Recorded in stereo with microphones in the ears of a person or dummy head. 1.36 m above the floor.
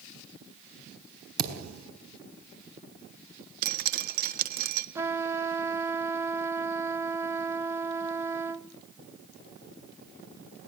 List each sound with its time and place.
1.4 s a thud: 80° right, 4.5 m
3.6 s dripping: 50° right (ahead or behind), 1.5 m
5.0 s a trumpet: 15° right (ahead or behind), 1.1 m